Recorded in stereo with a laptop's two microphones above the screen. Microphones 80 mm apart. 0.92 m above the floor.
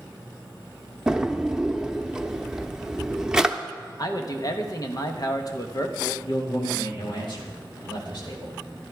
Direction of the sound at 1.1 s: 10° right (ahead or behind).